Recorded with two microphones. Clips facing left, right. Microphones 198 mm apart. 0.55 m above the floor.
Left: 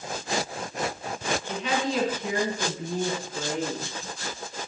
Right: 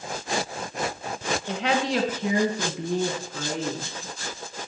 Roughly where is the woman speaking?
Right.